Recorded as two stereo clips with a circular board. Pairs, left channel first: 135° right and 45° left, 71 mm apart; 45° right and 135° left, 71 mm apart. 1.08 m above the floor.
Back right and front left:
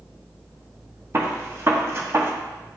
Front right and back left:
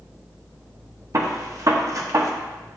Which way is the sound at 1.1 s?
95° left.